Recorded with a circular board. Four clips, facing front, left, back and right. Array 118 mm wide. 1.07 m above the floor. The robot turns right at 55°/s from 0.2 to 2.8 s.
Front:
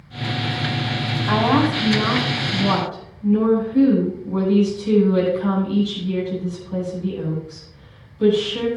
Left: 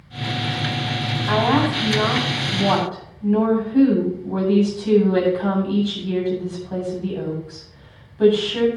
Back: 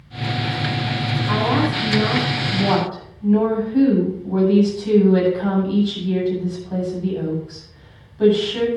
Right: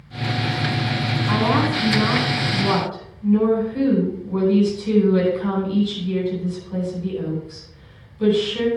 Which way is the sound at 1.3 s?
40° left.